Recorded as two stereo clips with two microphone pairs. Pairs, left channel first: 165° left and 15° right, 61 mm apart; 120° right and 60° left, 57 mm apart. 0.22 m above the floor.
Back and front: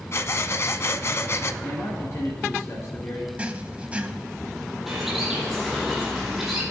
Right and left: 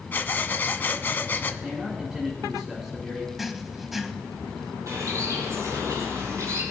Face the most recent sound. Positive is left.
turn(degrees=70)